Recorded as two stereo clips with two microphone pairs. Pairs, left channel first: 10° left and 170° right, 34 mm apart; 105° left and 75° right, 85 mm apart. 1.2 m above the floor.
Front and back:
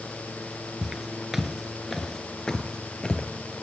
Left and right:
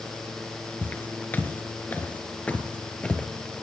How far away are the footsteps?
About 1.2 m.